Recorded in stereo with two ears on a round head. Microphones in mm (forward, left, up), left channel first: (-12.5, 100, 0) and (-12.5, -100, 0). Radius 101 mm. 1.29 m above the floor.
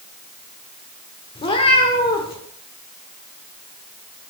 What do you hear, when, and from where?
1.4 s a cat meowing: 25° left (ahead or behind), 1.3 m